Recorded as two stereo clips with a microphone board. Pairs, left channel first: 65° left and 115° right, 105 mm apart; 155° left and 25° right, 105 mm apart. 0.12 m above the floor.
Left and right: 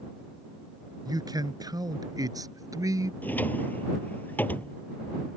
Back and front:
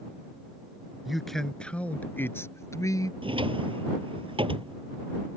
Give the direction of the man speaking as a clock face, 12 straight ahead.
4 o'clock.